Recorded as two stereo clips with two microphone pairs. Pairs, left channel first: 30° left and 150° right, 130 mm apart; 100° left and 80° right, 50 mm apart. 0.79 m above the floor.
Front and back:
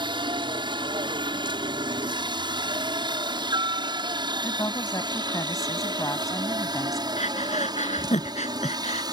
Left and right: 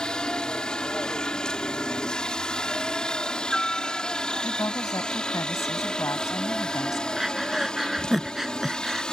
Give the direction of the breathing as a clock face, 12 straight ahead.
12 o'clock.